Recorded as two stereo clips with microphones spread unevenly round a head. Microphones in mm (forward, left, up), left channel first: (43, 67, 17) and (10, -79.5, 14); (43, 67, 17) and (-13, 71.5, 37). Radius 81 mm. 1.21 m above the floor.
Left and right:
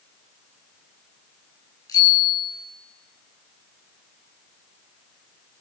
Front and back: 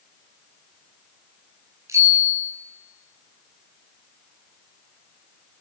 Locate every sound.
1.9 s a bicycle bell: 150° left, 9 m